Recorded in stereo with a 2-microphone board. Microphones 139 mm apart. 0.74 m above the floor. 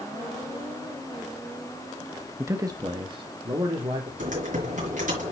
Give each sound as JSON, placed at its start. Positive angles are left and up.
{"t": 2.4, "sound": "a man speaking", "side_deg": -15, "distance_m": 0.8}
{"t": 4.2, "sound": "typing on a keyboard", "side_deg": -65, "distance_m": 5.0}